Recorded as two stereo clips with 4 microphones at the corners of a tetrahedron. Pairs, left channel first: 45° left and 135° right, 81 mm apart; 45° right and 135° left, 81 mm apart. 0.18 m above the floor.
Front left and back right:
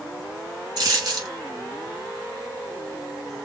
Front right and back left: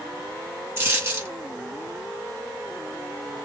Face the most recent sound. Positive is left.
turn(degrees=-170)